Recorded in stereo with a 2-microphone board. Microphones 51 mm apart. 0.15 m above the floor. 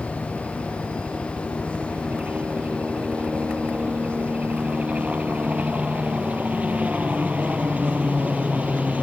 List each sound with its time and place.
0.0 s a helicopter: 25° right (ahead or behind)